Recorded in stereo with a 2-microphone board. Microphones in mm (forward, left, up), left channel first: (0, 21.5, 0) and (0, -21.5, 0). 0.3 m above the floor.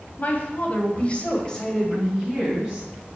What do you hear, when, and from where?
0.2 s a woman speaking: 40° left (ahead or behind), 1.8 m; by 2.9 s 5° right (ahead or behind), 2.5 m